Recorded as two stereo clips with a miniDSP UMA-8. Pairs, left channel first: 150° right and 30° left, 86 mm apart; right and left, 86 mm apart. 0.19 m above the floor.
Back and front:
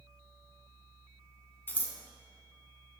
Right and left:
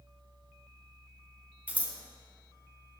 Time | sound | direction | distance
1.7 | scissors | 155° left | 0.9 m